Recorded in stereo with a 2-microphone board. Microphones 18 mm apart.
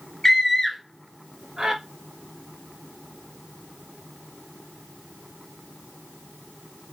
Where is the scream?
15° left (ahead or behind), 1.4 m; by 1.8 s 35° right (ahead or behind), 1.6 m.